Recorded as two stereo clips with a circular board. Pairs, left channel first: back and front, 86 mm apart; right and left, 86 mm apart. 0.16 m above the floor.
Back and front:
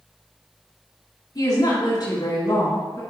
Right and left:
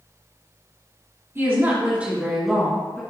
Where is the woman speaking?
145° left, 3 m; by 3.0 s 155° right, 1.9 m.